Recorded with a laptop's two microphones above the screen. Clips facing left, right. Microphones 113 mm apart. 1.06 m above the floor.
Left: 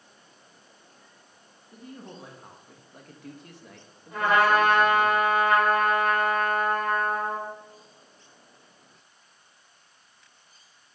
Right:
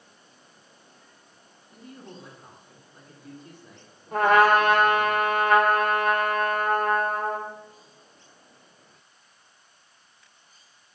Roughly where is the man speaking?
Left.